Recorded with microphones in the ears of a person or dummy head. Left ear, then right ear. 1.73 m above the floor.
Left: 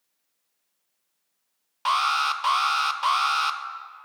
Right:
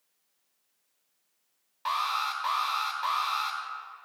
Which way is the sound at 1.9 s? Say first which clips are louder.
Left 7 dB; 35° left (ahead or behind).